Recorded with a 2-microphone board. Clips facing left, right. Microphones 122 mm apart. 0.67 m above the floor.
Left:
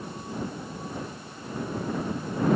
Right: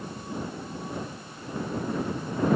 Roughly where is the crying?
No crying in this recording.